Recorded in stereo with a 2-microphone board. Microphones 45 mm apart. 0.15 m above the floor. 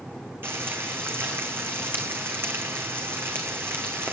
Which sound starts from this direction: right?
Frying, at 0.4 s.